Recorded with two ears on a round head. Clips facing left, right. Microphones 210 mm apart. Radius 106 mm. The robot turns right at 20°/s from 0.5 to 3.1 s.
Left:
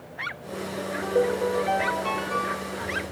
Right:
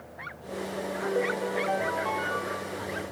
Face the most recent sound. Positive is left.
turn(degrees=140)